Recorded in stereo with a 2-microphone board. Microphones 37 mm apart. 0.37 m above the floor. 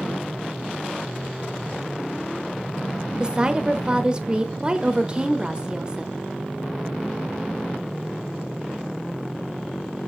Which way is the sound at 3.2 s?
25° right (ahead or behind).